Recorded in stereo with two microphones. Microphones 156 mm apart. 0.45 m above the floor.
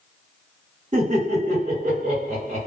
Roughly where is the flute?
I don't hear a flute.